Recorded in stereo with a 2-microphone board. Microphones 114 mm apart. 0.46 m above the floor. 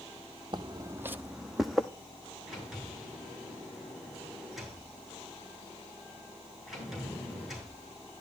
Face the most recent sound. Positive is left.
turn(degrees=-5)  # may be behind; listen again after turning